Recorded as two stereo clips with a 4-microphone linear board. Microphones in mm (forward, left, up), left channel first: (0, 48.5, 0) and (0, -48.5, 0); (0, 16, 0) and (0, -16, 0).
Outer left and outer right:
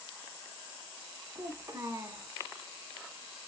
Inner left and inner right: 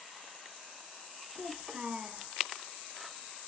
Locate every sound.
1.4 s a child speaking: 30° right (ahead or behind), 1.3 m